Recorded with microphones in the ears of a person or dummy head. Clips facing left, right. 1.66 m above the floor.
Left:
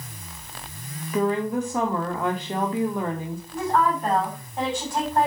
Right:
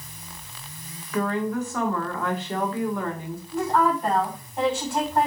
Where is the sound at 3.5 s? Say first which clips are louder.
Right 1 dB; centre (ahead or behind), 5 m.